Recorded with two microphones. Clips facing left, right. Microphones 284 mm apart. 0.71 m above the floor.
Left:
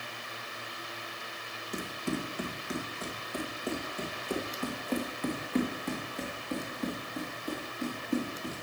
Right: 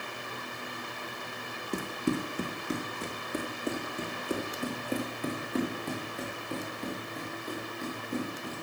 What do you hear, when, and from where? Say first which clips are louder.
1.7 s running footsteps: right 4 dB; 45° right (ahead or behind), 2 m; by 8.5 s 10° left (ahead or behind), 5 m